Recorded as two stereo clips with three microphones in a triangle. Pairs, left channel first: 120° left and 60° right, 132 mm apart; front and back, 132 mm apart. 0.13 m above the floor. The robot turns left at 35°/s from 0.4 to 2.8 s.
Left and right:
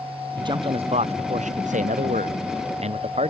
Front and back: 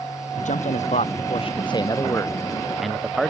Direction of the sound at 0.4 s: 5° right.